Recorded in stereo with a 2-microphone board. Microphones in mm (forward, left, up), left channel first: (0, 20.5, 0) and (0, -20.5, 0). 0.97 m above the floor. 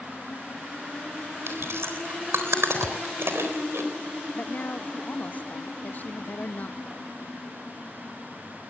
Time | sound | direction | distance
1.5 | chewing | 85° right | 3.5 m
2.8 | a thud | 5° right (ahead or behind) | 0.6 m
4.3 | a woman speaking | 40° left (ahead or behind) | 0.9 m